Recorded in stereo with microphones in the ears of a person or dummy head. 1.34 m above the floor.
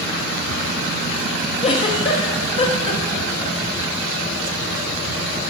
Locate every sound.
1.6 s a giggle: 35° left (ahead or behind), 1.1 m